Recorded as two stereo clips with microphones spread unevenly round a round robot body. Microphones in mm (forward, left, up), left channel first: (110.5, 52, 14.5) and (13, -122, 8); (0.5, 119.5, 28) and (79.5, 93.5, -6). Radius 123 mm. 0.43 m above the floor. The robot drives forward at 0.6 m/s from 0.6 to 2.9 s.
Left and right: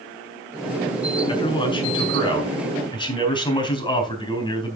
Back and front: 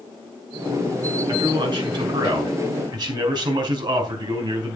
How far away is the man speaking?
About 4.5 m.